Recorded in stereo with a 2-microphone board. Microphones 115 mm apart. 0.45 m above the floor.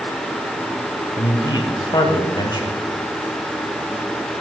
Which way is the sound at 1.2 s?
40° left (ahead or behind).